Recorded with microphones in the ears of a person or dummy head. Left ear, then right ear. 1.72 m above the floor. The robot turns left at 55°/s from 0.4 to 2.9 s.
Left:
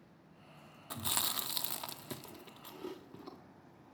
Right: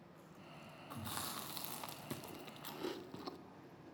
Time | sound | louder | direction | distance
0.9 | chewing | left 9 dB | 30° left (ahead or behind) | 0.6 m